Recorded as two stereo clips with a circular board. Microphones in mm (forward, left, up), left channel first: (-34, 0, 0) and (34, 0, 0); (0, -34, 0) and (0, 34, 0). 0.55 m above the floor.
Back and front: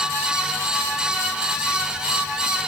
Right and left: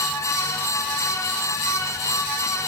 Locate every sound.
Only background noise.